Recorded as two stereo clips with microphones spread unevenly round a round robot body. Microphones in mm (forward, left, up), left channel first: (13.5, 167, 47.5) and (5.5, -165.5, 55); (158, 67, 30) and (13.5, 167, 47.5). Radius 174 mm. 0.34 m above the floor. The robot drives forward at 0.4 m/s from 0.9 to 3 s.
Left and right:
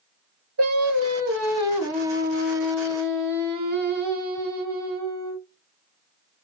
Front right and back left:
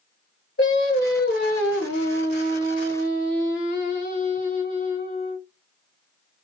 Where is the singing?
45° right, 2 m; by 5.4 s 65° right, 1.7 m.